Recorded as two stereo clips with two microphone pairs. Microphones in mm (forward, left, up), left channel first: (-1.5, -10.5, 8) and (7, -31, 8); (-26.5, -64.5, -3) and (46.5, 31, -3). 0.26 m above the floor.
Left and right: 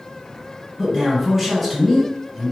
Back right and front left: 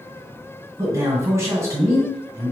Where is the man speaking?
Straight ahead, 1.8 m.